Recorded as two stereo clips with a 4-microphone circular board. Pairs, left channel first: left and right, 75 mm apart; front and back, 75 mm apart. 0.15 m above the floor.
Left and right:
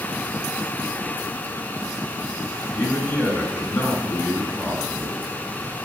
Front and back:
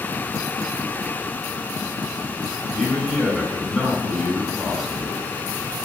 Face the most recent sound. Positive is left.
turn(degrees=90)